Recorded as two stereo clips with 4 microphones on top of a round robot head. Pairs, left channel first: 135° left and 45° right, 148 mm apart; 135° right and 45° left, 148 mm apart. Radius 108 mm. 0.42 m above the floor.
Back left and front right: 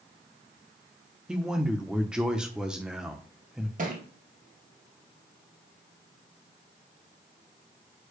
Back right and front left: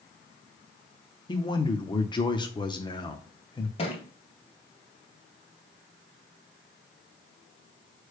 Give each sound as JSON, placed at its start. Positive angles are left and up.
{"t": 1.3, "sound": "a man speaking", "azimuth_deg": -125, "distance_m": 1.0}
{"t": 3.8, "sound": "a thud", "azimuth_deg": -80, "distance_m": 1.9}